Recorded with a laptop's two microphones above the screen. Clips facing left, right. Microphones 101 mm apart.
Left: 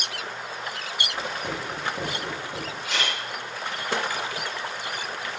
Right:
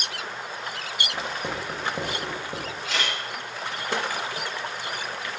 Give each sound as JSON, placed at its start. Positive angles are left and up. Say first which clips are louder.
{"t": 1.1, "sound": "writing", "louder": "even", "side_deg": -30, "distance_m": 0.7}
{"t": 2.8, "sound": "a camera shutter", "louder": "even", "side_deg": 15, "distance_m": 1.7}